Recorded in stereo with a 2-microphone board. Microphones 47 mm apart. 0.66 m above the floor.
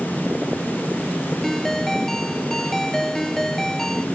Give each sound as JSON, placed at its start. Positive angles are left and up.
{"t": 1.4, "sound": "a ringtone", "side_deg": 10}